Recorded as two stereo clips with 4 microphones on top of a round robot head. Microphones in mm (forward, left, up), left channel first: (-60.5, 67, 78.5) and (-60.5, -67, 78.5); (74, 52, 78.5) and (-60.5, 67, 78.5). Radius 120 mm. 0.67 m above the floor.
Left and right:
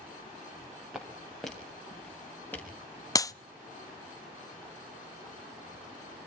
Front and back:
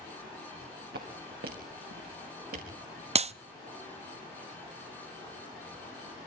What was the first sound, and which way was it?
Footsteps, 175° right.